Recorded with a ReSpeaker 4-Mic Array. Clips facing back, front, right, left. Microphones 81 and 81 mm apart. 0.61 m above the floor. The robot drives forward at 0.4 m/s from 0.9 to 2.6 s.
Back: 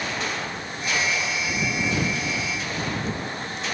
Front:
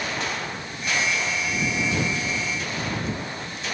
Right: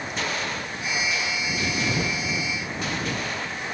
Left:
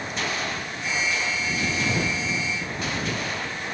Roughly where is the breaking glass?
No breaking glass in this recording.